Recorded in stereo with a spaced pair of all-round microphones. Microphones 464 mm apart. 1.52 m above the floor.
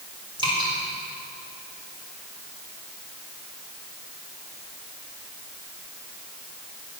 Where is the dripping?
10° right (ahead or behind), 4.5 m.